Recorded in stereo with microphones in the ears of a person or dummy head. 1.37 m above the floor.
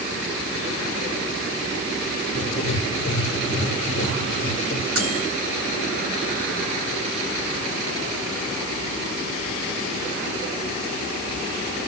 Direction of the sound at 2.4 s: 40° left (ahead or behind).